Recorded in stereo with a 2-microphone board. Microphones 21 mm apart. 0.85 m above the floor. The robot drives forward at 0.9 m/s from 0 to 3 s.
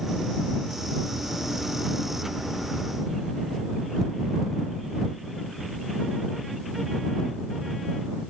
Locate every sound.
Only background noise.